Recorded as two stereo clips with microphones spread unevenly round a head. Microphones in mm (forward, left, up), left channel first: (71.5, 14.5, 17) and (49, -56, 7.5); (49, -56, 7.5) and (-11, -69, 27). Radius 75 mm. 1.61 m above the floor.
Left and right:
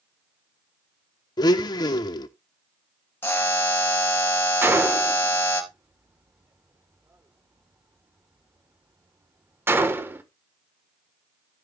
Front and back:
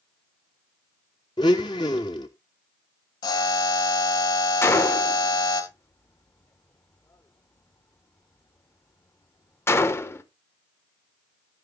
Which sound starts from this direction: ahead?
A buzzer, at 3.2 s.